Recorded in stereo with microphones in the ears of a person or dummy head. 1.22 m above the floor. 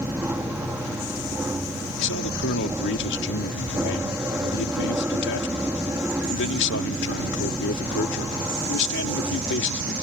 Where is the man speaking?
65° left (ahead or behind).